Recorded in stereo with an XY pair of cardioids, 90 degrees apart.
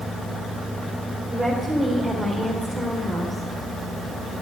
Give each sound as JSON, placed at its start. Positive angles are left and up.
{"t": 1.3, "sound": "a woman speaking", "azimuth_deg": -25, "distance_m": 4.5}